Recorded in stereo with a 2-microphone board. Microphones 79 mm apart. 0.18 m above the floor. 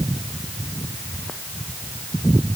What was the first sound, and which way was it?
Only background noise.